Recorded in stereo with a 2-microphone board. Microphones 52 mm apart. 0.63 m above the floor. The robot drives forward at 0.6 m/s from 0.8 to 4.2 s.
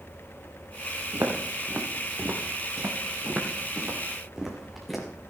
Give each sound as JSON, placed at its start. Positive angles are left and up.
{"t": 1.1, "sound": "footsteps", "side_deg": -70, "distance_m": 2.5}